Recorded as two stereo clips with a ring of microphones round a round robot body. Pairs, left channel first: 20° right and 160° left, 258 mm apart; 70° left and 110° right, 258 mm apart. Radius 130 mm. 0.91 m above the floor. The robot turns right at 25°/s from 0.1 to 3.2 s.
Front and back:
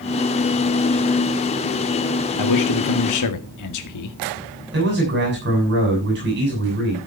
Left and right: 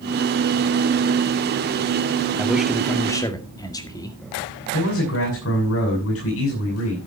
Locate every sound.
2.4 s a man speaking: 30° right, 1.9 m; by 4.2 s 10° right, 1.9 m
4.7 s a man speaking: 105° left, 7 m